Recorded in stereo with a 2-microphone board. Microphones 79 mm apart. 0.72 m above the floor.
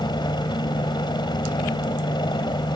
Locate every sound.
0.0 s a helicopter: 70° left (ahead or behind)